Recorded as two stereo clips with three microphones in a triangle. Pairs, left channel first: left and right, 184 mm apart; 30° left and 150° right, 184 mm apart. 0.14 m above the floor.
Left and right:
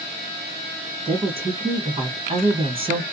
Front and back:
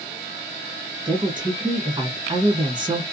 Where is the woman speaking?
110° right, 1.2 m.